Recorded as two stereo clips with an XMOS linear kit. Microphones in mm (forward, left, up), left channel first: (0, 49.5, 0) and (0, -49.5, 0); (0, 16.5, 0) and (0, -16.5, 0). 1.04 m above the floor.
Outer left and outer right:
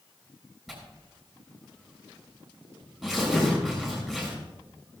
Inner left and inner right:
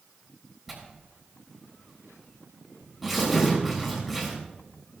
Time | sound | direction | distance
0.7 | tearing paper | 5° right (ahead or behind) | 7 m